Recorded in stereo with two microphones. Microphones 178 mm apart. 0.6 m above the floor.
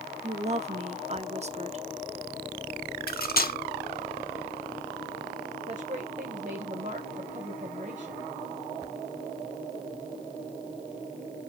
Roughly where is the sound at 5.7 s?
Right.